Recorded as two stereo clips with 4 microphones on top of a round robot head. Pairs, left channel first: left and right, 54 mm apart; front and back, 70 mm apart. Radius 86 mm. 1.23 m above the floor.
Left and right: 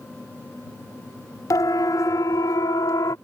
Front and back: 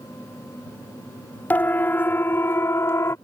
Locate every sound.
1.5 s a siren: 65° left; by 3.1 s 55° left